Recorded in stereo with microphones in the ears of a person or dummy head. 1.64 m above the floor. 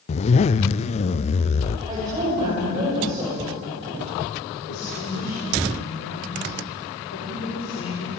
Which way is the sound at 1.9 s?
25° right (ahead or behind).